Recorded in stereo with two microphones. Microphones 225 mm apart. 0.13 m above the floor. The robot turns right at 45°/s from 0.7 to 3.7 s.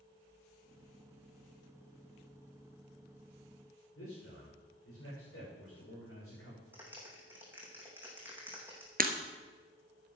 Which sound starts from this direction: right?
Breaking glass, at 9.0 s.